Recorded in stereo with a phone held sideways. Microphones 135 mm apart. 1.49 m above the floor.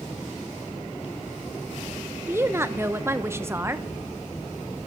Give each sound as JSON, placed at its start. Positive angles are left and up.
{"t": 2.3, "sound": "a woman speaking", "side_deg": -20, "distance_m": 0.6}